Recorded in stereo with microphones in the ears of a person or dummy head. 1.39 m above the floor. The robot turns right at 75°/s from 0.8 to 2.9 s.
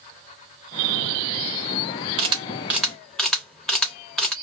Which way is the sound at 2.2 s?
35° right (ahead or behind).